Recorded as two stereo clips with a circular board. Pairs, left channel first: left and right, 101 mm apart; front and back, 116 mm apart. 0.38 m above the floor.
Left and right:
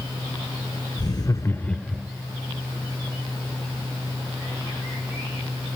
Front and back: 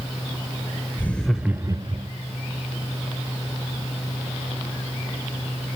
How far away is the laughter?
About 1.2 m.